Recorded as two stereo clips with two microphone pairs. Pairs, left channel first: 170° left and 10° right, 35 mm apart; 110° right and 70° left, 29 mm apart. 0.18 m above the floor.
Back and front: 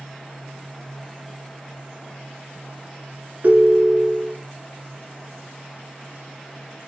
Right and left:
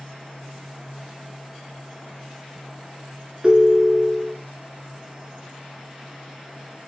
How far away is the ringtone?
About 0.9 m.